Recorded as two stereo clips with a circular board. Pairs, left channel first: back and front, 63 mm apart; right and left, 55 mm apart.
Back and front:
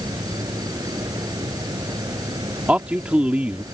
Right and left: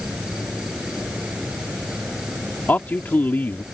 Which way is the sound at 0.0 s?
10° left.